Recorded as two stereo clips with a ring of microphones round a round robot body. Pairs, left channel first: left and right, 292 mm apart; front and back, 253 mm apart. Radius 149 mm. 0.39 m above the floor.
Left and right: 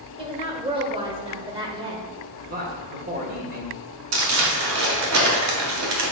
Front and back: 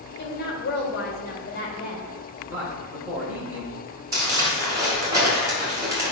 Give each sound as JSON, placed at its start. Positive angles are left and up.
{"t": 0.2, "sound": "a woman speaking", "azimuth_deg": -25, "distance_m": 1.7}
{"t": 2.5, "sound": "a man speaking", "azimuth_deg": -105, "distance_m": 1.4}
{"t": 4.1, "sound": "crumpling", "azimuth_deg": -105, "distance_m": 1.9}